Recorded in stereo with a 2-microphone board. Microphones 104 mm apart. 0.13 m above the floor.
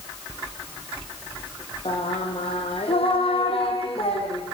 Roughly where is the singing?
Left.